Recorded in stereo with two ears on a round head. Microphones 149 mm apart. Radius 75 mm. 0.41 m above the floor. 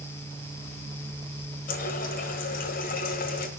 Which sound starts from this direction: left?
A running tap, at 1.7 s.